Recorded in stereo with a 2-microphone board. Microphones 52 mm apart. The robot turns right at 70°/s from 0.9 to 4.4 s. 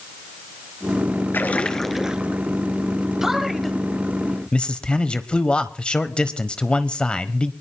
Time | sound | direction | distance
1.3 | a splash | 135° left | 1.1 m
3.2 | a man speaking | 10° right (ahead or behind) | 1.1 m